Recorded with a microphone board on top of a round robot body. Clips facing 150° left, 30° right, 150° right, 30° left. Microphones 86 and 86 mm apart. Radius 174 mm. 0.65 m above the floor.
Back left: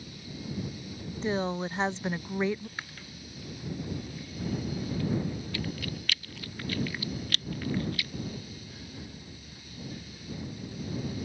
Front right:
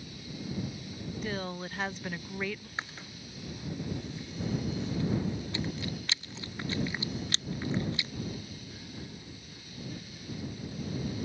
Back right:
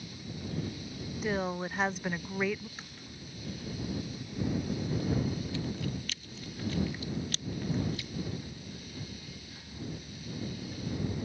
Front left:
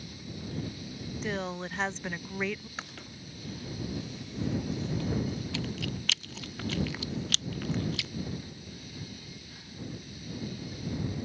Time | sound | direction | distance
1.2 | a woman speaking | 140° left | ?
2.8 | chewing | 40° left | ?